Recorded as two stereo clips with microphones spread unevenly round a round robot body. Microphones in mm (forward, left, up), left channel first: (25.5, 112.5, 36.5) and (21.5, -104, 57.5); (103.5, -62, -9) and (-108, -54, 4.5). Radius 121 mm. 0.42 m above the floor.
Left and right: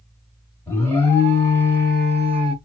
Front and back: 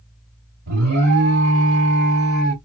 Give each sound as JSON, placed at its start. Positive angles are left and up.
{"t": 0.7, "sound": "an alarm", "azimuth_deg": 165, "distance_m": 1.6}